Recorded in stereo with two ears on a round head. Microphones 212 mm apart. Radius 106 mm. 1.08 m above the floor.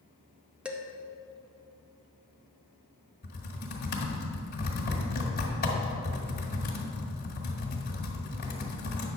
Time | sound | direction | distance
0.7 | dishes clattering | 5° right (ahead or behind) | 0.8 m
3.2 | typing on a keyboard | 45° left (ahead or behind) | 1.6 m